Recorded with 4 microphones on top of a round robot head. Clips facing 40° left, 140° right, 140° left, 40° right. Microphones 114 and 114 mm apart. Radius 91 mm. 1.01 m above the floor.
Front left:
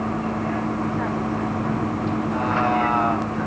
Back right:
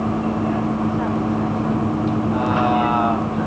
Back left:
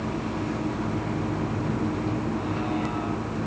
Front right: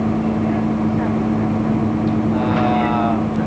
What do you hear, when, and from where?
0.0 s a vehicle: 65° right